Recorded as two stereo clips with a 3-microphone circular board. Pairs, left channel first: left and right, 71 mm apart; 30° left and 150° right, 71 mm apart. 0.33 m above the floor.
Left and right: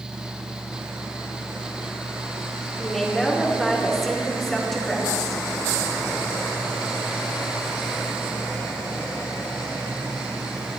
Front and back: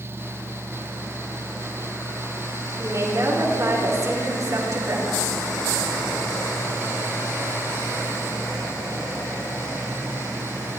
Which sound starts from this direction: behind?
A woman speaking, at 2.8 s.